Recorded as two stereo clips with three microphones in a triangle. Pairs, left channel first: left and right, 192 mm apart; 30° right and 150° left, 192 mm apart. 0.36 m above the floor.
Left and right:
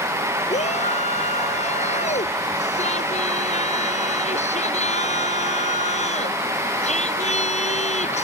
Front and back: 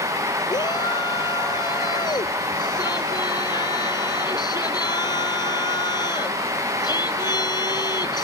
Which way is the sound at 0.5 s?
40° left.